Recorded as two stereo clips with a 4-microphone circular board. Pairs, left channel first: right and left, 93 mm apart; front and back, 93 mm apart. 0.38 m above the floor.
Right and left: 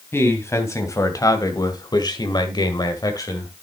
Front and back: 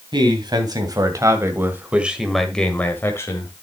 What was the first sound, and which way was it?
A man speaking, 150° right.